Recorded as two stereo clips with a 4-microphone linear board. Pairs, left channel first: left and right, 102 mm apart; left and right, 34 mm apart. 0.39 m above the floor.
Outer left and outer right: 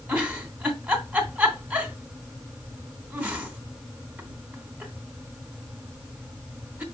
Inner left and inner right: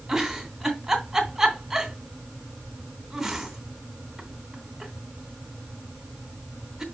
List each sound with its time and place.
0.1 s a giggle: 15° right (ahead or behind), 2.5 m